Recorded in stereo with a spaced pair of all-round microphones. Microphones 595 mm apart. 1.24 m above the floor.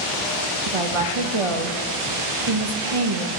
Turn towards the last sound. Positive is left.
turn(degrees=-60)  # may be behind; listen again after turning